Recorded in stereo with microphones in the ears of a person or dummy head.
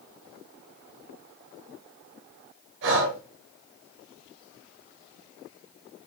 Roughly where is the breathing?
Right.